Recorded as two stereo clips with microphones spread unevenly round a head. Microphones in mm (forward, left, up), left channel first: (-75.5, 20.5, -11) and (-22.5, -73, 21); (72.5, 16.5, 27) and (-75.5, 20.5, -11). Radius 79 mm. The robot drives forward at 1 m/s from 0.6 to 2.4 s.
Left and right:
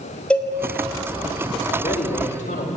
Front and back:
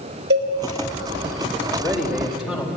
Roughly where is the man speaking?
Left.